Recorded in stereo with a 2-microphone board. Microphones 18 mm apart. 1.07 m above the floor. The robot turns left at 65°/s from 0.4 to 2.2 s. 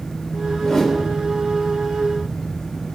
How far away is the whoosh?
About 1.1 m.